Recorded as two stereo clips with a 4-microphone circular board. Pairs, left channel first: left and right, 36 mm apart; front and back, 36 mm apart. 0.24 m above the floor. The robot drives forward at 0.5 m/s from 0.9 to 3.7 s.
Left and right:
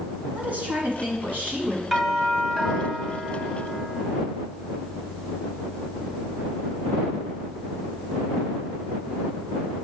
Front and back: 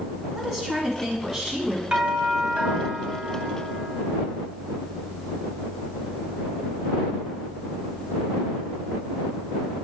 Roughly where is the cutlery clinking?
No cutlery clinking in this recording.